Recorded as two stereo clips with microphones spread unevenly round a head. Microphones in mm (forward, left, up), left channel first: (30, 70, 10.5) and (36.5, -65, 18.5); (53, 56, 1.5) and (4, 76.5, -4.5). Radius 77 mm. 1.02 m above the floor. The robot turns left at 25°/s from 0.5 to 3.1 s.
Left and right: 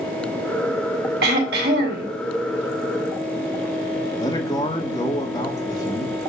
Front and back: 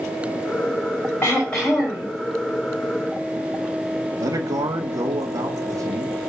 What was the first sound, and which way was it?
Throat clearing, 100° right.